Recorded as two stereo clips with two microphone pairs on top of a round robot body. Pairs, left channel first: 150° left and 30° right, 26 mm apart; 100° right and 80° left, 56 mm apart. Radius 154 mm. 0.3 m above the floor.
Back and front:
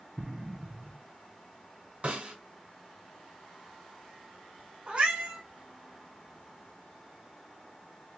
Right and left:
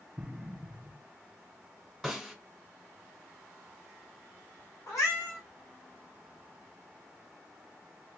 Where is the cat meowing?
75° right, 1.9 m.